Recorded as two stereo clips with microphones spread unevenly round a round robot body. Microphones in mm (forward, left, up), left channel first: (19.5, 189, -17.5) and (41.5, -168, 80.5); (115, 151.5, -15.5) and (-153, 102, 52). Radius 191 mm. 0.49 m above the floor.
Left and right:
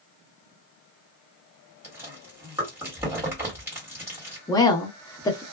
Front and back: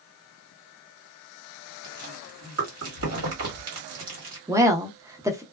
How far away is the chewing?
About 1.6 m.